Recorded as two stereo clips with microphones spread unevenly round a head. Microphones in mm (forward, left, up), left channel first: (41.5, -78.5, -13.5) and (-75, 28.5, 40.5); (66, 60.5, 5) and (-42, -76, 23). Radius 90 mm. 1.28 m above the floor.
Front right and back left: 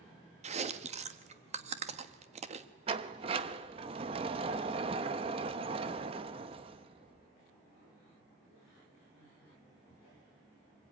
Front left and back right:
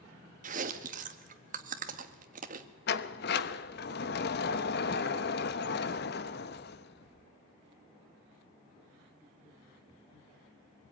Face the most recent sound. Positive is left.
turn(degrees=90)